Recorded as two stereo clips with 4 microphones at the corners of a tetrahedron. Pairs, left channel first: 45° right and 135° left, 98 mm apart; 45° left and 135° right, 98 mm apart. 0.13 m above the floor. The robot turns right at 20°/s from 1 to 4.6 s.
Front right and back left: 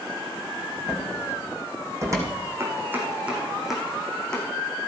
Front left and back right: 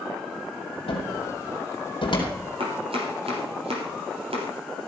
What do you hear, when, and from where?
0.9 s a cupboard door: 55° left, 3.5 m; by 2.3 s 80° left, 3.5 m
2.6 s chopping: 160° right, 4 m; by 4.5 s 125° right, 4 m